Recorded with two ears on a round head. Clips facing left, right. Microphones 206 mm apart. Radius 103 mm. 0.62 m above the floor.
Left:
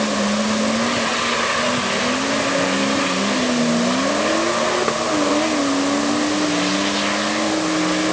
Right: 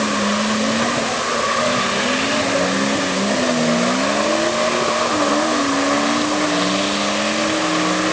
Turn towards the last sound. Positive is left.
No sound to turn to.